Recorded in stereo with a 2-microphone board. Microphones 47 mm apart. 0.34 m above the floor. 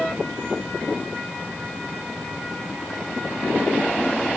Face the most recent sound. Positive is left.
No sound to turn to.